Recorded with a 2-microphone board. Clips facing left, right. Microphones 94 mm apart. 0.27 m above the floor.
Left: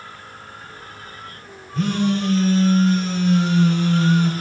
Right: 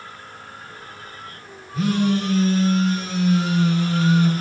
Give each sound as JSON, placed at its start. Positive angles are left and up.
{"t": 1.7, "sound": "a phone buzzing", "side_deg": -5, "distance_m": 2.0}